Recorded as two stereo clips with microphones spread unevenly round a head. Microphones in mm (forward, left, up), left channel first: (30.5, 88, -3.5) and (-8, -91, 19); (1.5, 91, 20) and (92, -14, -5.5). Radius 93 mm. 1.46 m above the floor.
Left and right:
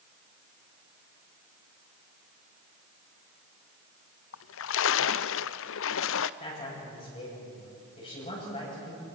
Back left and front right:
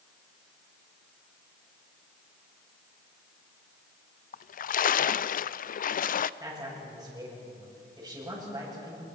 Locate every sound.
4.3 s a splash: 100° left, 0.5 m
6.4 s a man speaking: 20° left, 8.5 m